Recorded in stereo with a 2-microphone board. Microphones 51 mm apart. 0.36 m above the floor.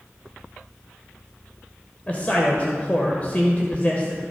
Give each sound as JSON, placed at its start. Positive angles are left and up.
{"t": 2.1, "sound": "a man speaking", "side_deg": 30, "distance_m": 1.3}